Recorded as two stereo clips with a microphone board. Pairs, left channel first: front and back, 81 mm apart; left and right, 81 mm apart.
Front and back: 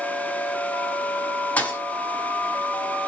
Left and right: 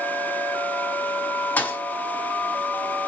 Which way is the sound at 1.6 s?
45° left.